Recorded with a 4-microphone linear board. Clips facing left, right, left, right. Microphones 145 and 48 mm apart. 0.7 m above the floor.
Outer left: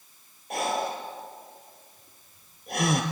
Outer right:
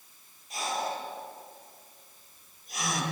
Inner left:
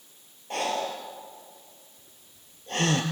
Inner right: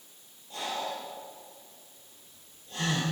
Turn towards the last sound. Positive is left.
turn(degrees=65)  # may be behind; listen again after turning